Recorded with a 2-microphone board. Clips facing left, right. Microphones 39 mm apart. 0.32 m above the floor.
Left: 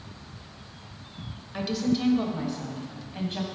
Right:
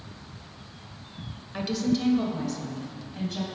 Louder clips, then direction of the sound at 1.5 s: Even; centre (ahead or behind).